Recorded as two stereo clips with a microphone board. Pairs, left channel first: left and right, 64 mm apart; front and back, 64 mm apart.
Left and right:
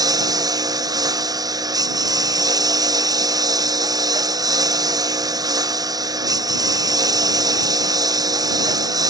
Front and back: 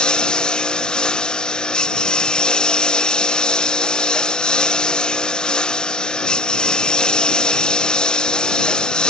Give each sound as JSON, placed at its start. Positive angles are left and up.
{"t": 0.0, "sound": "a lawn mower", "azimuth_deg": -80}